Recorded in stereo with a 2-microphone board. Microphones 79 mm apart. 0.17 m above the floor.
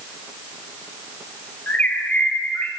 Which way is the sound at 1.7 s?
15° left (ahead or behind).